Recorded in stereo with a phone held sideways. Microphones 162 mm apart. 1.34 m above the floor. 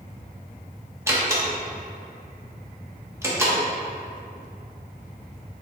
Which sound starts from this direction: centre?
A door slam, at 1.1 s.